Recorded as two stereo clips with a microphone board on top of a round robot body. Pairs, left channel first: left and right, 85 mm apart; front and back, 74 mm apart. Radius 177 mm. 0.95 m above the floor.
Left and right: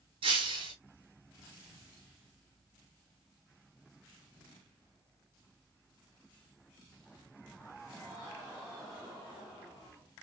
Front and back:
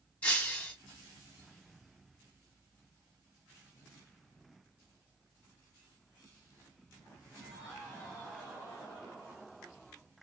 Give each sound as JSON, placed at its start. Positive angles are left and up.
{"t": 0.2, "sound": "breaking glass", "azimuth_deg": -70, "distance_m": 1.2}